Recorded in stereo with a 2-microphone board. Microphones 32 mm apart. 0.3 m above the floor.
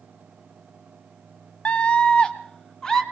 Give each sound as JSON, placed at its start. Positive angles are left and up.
{"t": 1.6, "sound": "a scream", "side_deg": 40, "distance_m": 1.9}